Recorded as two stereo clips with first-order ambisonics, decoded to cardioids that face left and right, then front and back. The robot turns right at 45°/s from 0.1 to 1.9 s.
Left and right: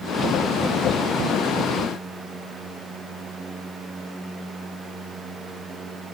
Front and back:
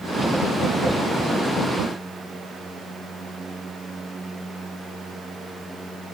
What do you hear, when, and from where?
Only background noise.